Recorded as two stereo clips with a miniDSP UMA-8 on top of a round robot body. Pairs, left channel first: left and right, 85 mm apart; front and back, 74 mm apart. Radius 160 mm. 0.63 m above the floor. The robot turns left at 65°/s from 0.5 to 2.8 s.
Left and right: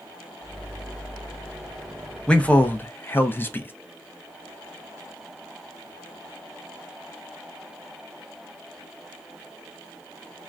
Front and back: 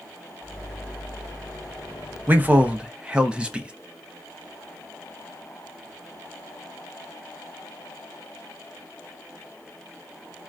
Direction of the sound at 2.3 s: 155° left.